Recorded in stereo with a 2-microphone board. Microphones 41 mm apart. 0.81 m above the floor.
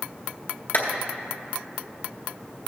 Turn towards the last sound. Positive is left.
turn(degrees=55)  # may be behind; listen again after turning